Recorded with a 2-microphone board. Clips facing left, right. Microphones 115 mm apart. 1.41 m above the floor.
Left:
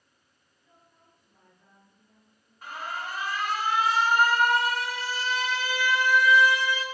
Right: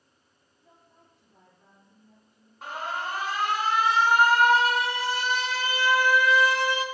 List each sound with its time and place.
0.6 s a woman speaking: 70° right (ahead or behind), 9.5 m; by 2.5 s 65° right (ahead or behind), 10 m
2.6 s an alarm: 70° right (ahead or behind), 2.5 m